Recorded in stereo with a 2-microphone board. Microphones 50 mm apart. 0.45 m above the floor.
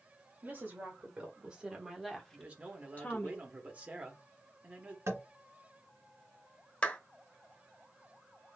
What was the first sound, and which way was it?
A woman speaking, 35° right (ahead or behind).